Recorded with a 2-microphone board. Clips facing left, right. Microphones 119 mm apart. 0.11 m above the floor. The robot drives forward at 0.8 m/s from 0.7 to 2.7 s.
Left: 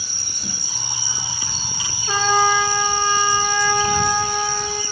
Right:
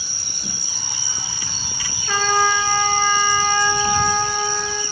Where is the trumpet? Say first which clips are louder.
Left 1 dB; 20° left (ahead or behind), 0.8 m; by 4.8 s 15° left (ahead or behind), 1.3 m.